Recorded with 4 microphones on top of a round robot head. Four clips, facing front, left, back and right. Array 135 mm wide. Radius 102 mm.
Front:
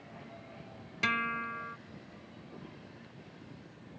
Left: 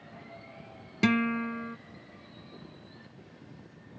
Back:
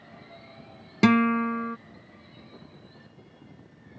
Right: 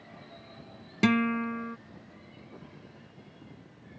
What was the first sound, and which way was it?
A guitar, 175° right.